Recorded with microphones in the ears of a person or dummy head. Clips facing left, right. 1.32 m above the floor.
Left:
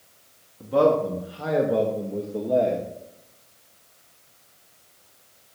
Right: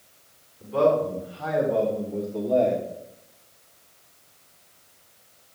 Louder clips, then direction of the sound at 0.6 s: Left 1 dB; 70° left (ahead or behind).